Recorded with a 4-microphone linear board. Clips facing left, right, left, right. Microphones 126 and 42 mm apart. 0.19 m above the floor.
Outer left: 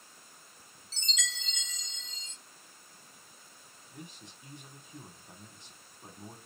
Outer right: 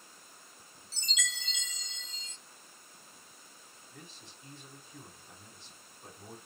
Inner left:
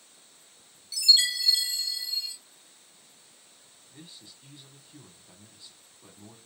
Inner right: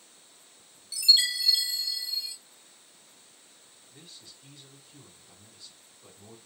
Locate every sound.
0.9 s a chime: 10° right (ahead or behind), 1.6 m
3.9 s a man speaking: 15° left (ahead or behind), 1.0 m